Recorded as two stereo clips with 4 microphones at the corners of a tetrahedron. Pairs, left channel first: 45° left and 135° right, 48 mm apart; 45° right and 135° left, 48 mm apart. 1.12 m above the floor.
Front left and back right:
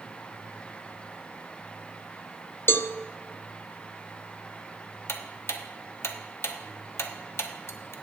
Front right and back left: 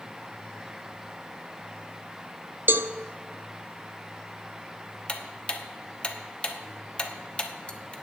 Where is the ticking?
20° left, 1.0 m.